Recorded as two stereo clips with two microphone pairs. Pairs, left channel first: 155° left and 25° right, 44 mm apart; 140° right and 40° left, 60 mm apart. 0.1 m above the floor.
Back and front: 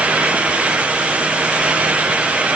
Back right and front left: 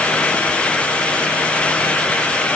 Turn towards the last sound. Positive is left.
No sound to turn to.